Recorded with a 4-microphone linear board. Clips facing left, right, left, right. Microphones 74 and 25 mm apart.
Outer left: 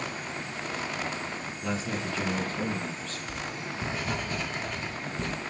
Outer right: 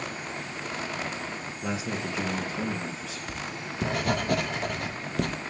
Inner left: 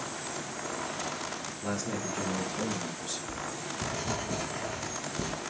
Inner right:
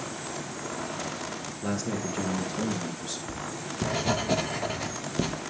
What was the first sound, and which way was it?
A man speaking, 15° right (ahead or behind).